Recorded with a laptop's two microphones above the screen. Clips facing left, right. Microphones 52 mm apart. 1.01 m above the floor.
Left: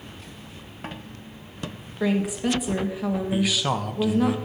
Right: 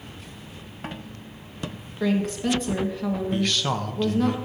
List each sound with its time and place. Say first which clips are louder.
2.0 s a woman speaking: even; 10° left (ahead or behind), 1.2 m
3.3 s a man speaking: left 2 dB; 5° left (ahead or behind), 0.7 m